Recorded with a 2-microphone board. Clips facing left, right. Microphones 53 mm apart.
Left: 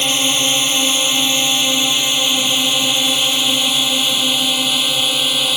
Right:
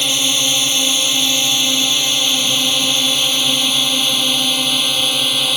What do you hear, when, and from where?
0.0 s a drone: 20° left (ahead or behind); by 5.6 s 5° left (ahead or behind)